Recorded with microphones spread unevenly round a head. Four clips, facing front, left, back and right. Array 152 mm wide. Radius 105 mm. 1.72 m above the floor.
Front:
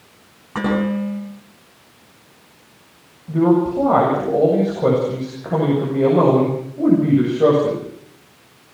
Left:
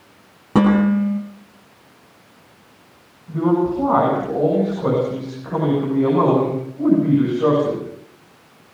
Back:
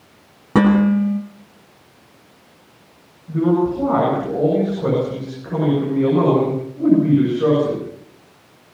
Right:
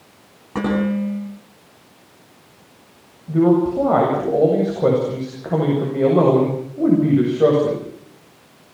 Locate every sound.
0.6 s dishes clattering: 155° left, 9.5 m
3.3 s a man speaking: 90° right, 8 m